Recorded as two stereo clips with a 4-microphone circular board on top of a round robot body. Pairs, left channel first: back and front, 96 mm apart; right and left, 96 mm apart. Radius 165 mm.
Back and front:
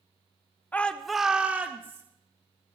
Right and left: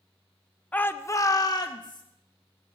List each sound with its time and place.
0.7 s a shout: 140° right, 1.0 m; by 2.0 s 60° right, 1.5 m